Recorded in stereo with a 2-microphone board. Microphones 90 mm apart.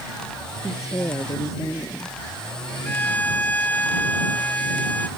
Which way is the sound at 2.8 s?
20° left (ahead or behind).